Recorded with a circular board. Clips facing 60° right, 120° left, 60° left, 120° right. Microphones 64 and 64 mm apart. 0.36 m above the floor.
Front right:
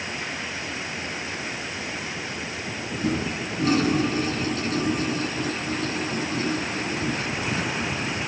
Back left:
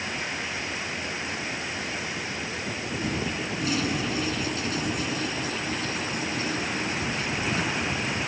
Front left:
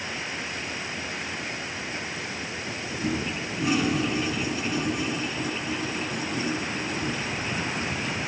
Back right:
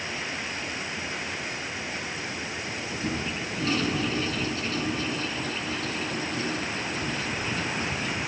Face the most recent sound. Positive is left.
turn(degrees=-15)